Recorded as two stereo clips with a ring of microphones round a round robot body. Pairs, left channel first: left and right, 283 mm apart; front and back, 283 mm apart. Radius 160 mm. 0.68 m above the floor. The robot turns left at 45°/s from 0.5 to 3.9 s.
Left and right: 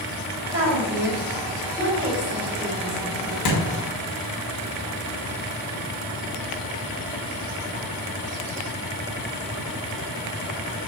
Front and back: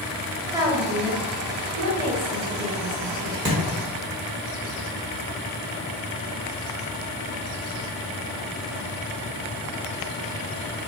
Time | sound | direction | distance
0.5 | a woman speaking | 100° right | 1.8 m
3.5 | a thud | 125° left | 1.1 m